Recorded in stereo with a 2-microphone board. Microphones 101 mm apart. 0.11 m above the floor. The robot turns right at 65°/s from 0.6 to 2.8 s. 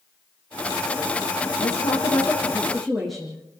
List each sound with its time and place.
1.6 s a woman speaking: 100° left, 5.5 m; by 3.4 s straight behind, 5.5 m